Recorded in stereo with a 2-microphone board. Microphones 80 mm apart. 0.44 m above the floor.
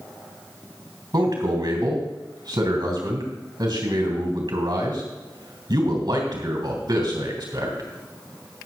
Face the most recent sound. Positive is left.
turn(degrees=-65)  # may be behind; listen again after turning